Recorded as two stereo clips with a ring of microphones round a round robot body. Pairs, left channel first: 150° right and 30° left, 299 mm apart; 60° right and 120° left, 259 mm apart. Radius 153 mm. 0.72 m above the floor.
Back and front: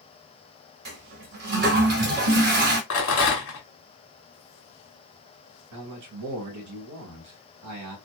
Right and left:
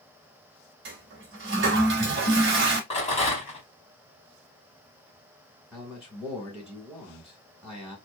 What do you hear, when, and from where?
0.8 s a toilet flushing: 85° left, 1.0 m
2.9 s a rattle: 120° right, 1.6 m
5.7 s a man speaking: 30° left, 1.3 m